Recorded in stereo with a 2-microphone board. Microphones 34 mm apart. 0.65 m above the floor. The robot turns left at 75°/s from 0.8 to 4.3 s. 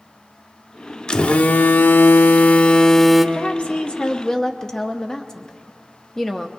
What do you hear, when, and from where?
1.1 s a phone buzzing: 155° left, 0.5 m; by 3.2 s 5° right, 0.5 m
3.4 s a woman speaking: 100° left, 0.7 m; by 6.5 s 30° left, 0.7 m